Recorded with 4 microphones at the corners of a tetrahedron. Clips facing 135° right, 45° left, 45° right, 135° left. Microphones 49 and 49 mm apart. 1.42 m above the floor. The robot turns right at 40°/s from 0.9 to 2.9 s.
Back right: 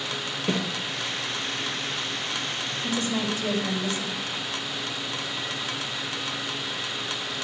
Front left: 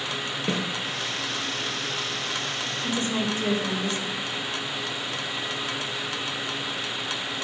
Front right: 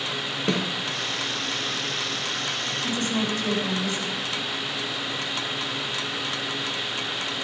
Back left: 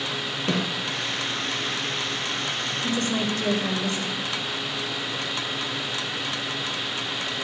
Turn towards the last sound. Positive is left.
turn(degrees=100)